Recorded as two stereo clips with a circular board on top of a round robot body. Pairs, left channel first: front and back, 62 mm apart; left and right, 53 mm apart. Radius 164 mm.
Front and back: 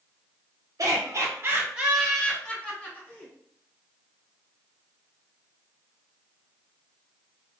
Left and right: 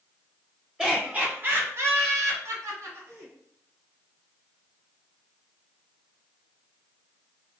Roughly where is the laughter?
Behind.